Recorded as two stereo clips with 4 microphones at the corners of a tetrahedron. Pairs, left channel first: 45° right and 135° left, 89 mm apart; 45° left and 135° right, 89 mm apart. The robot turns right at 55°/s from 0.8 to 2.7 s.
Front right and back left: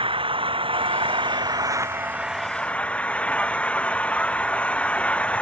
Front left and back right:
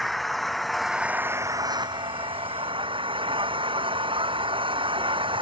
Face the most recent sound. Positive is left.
turn(degrees=-120)